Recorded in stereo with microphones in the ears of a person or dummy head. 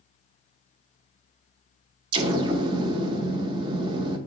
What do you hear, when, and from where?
2.1 s an explosion: 30° right (ahead or behind), 0.6 m